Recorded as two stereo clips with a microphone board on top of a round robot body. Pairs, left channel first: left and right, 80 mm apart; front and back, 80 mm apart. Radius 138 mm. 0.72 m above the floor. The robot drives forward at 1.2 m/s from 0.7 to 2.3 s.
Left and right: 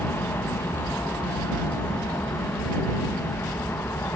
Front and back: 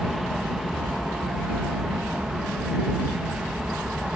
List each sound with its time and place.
0.0 s an aircraft: 95° left; by 4.2 s 105° left